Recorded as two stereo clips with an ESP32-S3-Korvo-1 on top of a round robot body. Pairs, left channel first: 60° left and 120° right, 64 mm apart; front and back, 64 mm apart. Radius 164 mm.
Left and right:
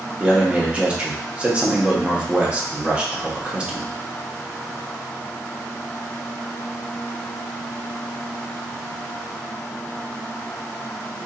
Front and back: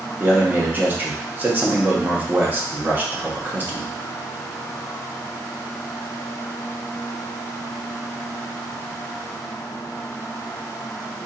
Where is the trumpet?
No trumpet in this recording.